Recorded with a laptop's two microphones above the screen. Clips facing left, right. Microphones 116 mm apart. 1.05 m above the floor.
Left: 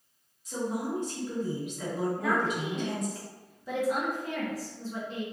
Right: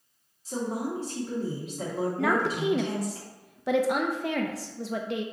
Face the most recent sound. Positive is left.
turn(degrees=-85)